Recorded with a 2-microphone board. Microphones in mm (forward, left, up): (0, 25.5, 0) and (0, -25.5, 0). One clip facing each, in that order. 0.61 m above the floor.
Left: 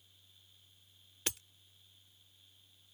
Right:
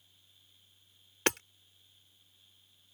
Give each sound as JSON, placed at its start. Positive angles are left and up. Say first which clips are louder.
{"t": 1.3, "sound": "hammering", "louder": "right 12 dB", "side_deg": -65}